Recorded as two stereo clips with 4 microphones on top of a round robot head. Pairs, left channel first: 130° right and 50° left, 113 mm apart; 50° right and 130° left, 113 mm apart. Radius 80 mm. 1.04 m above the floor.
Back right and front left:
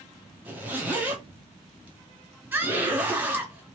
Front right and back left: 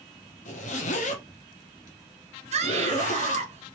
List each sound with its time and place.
0.5 s a zipper: 30° right, 0.9 m
2.5 s a scream: 120° left, 1.7 m